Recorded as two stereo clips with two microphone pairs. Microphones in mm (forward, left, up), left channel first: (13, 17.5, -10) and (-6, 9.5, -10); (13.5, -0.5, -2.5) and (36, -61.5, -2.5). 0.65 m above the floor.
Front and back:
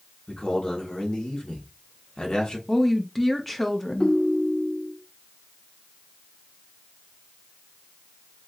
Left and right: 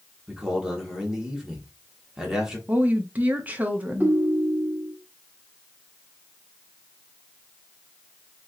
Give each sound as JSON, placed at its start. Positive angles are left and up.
{"t": 0.3, "sound": "a man speaking", "azimuth_deg": 5, "distance_m": 1.3}
{"t": 2.7, "sound": "a woman speaking", "azimuth_deg": -40, "distance_m": 0.8}
{"t": 4.0, "sound": "a ringtone", "azimuth_deg": -10, "distance_m": 1.1}